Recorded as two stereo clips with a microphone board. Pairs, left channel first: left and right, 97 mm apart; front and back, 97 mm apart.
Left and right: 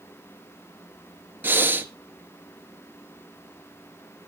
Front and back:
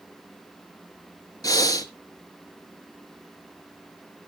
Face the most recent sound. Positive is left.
turn(degrees=-30)